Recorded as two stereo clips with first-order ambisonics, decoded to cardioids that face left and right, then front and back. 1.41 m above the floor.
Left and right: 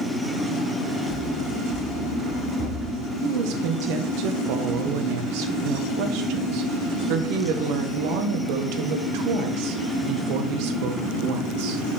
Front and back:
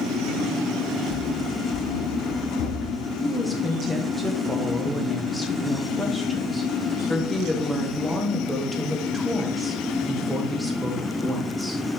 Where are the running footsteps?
15° right, 4 m; by 3.1 s 25° right, 4.5 m.